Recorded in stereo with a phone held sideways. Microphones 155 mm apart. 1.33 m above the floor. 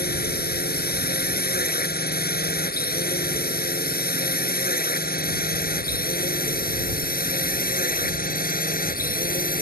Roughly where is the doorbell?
I don't hear a doorbell.